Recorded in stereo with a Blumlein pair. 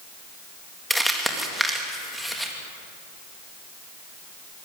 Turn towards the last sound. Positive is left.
turn(degrees=0)